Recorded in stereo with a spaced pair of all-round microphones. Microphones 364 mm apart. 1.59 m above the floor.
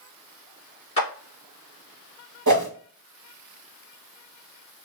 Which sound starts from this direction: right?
A whoosh, at 2.5 s.